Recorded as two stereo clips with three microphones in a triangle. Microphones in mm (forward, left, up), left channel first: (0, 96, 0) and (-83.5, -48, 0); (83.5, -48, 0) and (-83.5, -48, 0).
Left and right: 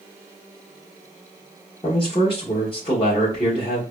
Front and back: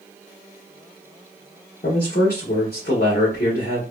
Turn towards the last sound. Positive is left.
turn(degrees=0)